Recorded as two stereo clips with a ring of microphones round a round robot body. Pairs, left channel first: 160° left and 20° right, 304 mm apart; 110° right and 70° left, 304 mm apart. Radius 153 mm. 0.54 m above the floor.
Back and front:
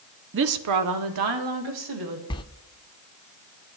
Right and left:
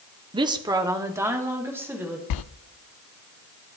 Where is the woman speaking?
Straight ahead, 0.7 m; by 2.2 s 15° right, 3.5 m.